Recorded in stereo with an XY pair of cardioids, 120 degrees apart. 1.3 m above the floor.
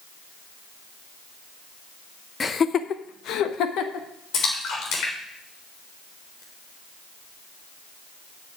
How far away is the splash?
About 3.5 m.